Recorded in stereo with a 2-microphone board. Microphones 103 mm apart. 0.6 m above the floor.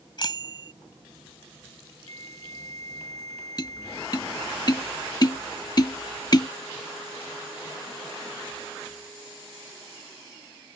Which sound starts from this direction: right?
A flute, at 2.1 s.